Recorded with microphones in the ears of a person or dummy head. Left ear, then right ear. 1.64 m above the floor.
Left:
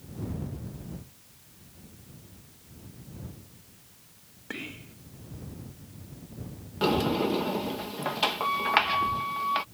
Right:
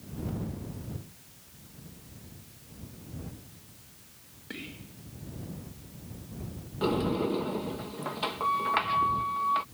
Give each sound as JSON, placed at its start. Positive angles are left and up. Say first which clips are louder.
{"t": 4.5, "sound": "whispering", "louder": "left 4 dB", "side_deg": 35}
{"t": 6.8, "sound": "a sliding door", "louder": "left 3 dB", "side_deg": 25}